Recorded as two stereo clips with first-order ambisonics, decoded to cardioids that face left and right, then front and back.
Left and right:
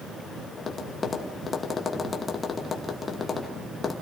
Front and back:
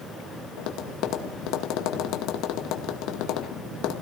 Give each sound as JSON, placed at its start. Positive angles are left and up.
{"t": 0.6, "sound": "tapping", "azimuth_deg": 20, "distance_m": 1.9}